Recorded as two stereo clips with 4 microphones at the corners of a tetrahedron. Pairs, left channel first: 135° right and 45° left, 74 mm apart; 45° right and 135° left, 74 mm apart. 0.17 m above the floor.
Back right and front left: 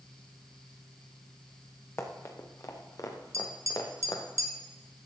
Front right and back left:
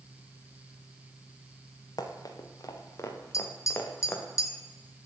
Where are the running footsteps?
80° right, 2.5 m; by 4.2 s 115° right, 3 m.